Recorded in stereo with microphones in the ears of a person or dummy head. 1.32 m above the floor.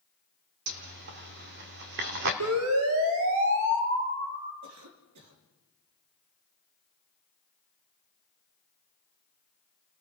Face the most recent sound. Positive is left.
turn(degrees=-65)  # may be behind; listen again after turning